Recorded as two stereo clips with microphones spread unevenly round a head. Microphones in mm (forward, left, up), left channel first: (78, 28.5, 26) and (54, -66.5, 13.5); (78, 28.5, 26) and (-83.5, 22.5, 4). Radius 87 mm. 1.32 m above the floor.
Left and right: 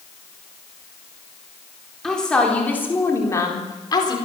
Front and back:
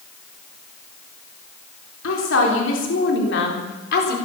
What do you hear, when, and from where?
2.0 s a woman speaking: 10° right, 4 m; by 4.2 s 30° left, 4.5 m